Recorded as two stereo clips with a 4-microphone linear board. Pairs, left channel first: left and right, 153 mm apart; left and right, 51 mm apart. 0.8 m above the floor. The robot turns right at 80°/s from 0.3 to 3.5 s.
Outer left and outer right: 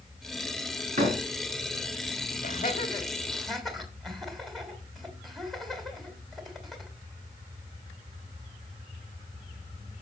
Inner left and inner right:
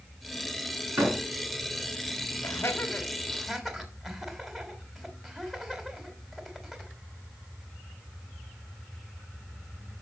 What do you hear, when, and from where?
1.0 s a door slam: 55° right (ahead or behind), 5 m; by 1.2 s 35° right (ahead or behind), 5 m
2.4 s laughter: 80° left, 2.5 m; by 6.9 s centre (ahead or behind), 2.5 m